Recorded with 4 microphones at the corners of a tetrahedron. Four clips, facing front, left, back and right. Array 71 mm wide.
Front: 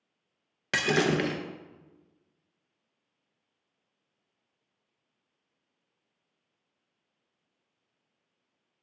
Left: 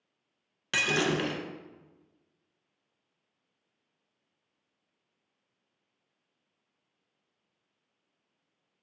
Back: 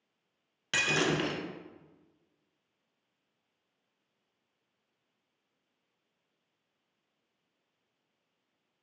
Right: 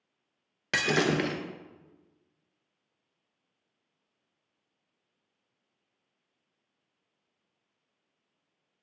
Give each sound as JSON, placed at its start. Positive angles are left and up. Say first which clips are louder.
{"t": 0.7, "sound": "breaking glass", "louder": "right 1 dB, front 3 dB", "azimuth_deg": -40, "distance_m": 0.5}